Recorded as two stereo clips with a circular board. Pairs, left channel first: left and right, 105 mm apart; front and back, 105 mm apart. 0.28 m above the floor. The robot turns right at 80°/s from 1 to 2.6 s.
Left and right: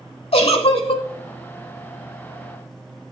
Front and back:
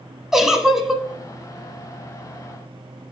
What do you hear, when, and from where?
0.3 s a giggle: 95° left, 0.6 m; by 1.0 s 100° left, 0.6 m